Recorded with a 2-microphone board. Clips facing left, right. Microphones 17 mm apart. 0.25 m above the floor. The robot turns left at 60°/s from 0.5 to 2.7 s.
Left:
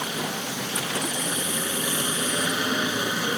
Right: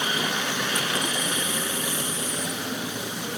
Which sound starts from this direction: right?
A helicopter, at 0.0 s.